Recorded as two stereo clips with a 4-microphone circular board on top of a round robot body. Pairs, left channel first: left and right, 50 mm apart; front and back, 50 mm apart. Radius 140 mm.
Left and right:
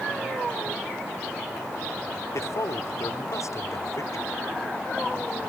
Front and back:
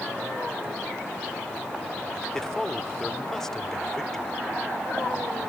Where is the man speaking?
80° left.